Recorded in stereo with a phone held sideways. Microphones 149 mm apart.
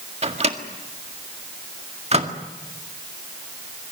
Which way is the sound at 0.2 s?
45° right (ahead or behind).